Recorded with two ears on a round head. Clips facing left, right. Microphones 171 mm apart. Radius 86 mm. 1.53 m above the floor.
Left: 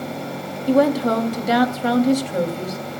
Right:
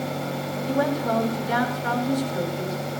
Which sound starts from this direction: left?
A woman speaking, at 0.7 s.